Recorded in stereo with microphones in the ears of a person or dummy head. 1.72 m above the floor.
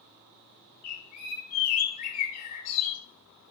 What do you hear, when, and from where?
0.8 s a bird: 40° left (ahead or behind), 1.8 m